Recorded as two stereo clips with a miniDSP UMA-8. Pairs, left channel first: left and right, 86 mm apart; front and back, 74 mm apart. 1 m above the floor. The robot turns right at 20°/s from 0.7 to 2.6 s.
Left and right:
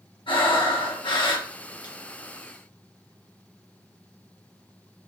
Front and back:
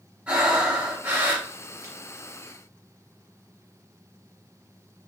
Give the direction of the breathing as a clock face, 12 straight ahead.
8 o'clock.